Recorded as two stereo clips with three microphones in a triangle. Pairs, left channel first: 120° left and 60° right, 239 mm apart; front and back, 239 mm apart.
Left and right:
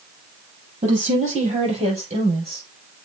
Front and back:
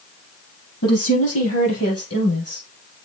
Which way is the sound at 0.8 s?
Straight ahead.